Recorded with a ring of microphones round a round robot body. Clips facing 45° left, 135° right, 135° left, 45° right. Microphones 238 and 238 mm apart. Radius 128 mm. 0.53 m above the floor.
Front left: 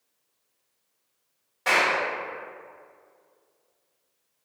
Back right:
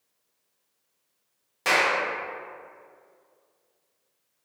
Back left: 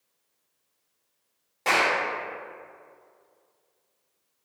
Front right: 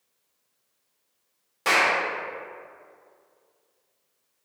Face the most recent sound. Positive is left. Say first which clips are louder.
# even, even
turn(degrees=-115)